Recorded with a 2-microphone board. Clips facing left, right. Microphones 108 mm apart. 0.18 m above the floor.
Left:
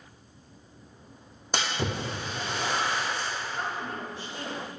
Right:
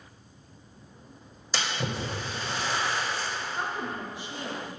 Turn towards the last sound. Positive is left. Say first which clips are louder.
# right 1 dB
turn(degrees=-15)  # may be behind; listen again after turning